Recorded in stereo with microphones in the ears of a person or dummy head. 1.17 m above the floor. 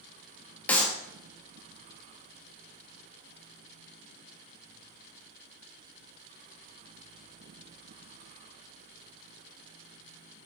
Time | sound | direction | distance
0.7 | a clap | 10° left (ahead or behind) | 1.1 m